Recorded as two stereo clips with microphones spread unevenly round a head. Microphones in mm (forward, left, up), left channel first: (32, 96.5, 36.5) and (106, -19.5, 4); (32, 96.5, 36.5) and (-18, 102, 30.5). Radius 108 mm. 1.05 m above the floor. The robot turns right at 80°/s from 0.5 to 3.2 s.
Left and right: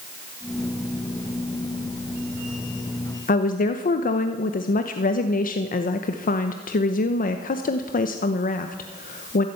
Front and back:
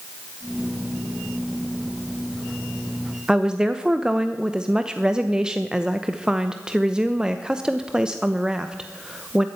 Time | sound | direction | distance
3.3 | a woman speaking | 105° left | 1.0 m